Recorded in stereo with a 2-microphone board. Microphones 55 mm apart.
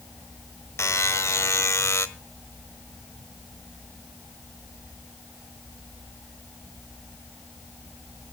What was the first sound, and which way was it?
A buzzer, 60° left (ahead or behind).